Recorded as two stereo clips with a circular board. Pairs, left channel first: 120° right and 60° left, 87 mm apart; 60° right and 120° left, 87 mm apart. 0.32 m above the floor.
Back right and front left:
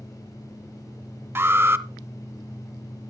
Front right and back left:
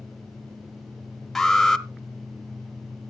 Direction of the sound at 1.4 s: 25° left.